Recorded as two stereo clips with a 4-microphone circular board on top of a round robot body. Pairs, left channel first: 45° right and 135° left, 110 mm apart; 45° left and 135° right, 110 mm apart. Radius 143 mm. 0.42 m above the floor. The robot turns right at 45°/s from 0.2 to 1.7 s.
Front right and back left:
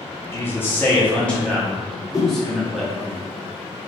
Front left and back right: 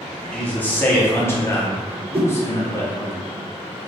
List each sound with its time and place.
0.3 s a man speaking: 20° right, 0.8 m; by 3.1 s 40° left, 0.8 m
2.1 s a whoosh: 105° right, 0.6 m